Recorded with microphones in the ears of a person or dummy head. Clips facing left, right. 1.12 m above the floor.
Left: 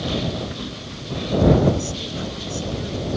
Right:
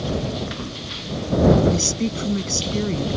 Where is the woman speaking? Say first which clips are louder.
Right 3 dB; 55° right (ahead or behind).